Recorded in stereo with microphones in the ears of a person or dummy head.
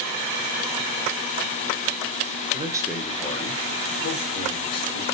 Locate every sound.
2.5 s a man speaking: 30° right (ahead or behind), 0.5 m; by 5.0 s 70° left (ahead or behind), 1.6 m